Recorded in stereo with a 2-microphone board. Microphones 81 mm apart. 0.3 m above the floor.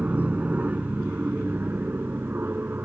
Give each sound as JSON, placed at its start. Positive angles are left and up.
{"t": 0.0, "sound": "an aircraft", "side_deg": -20}